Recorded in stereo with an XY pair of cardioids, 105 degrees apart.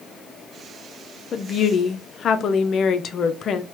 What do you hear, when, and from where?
1.3 s a woman speaking: 55° left, 0.5 m